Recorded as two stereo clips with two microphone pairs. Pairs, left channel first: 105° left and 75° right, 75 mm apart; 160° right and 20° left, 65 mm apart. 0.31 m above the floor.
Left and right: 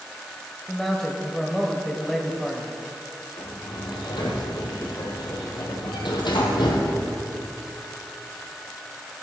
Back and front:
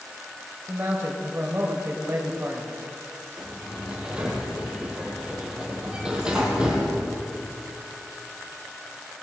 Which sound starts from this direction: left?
A sliding door, at 3.4 s.